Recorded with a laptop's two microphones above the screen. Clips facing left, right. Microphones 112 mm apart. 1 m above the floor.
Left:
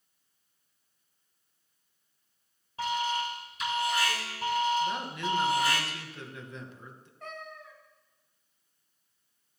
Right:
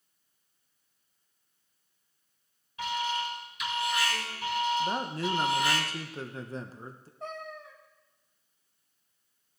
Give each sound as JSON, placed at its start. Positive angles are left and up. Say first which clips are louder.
{"t": 2.8, "sound": "an alarm", "louder": "left 1 dB", "side_deg": 35, "distance_m": 3.5}
{"t": 4.8, "sound": "a man speaking", "louder": "right 1 dB", "side_deg": -35, "distance_m": 0.7}
{"t": 7.2, "sound": "a cat meowing", "louder": "right 4 dB", "side_deg": -30, "distance_m": 1.4}